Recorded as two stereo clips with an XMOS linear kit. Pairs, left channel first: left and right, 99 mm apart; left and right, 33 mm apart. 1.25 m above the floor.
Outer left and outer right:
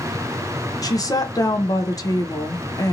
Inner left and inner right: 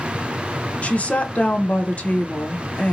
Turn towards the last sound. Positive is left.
turn(degrees=40)  # may be behind; listen again after turning